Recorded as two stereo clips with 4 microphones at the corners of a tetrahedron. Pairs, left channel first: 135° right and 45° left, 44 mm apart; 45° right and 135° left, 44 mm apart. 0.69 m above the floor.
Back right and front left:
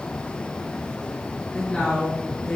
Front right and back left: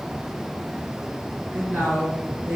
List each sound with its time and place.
1.5 s a woman speaking: 165° left, 2.0 m